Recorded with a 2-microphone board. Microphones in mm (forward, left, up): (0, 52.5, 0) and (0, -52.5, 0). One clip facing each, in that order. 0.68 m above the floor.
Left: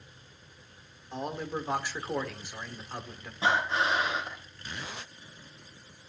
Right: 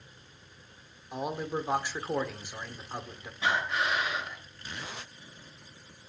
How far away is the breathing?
About 3 m.